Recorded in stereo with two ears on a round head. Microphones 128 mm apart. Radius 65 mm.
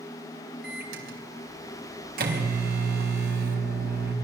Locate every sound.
0.6 s a microwave: 70° right (ahead or behind), 4.5 m